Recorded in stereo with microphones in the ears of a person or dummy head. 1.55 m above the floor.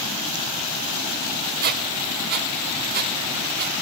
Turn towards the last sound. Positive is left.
turn(degrees=-50)  # may be behind; listen again after turning